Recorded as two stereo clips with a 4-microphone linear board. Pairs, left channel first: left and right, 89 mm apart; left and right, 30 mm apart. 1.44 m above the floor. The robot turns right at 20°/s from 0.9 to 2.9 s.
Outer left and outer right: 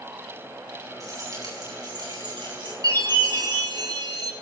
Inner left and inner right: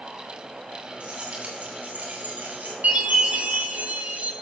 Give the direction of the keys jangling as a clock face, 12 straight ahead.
5 o'clock.